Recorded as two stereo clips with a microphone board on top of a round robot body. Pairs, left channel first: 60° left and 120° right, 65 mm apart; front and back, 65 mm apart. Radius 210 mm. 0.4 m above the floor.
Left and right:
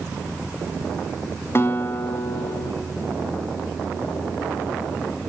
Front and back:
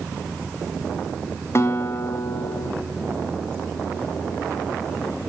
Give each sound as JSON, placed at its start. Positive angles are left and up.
{"t": 1.6, "sound": "a guitar", "azimuth_deg": 25, "distance_m": 1.4}